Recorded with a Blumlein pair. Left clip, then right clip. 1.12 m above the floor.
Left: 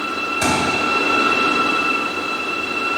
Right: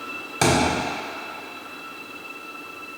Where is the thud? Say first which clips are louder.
Even; 60° right, 2.5 m.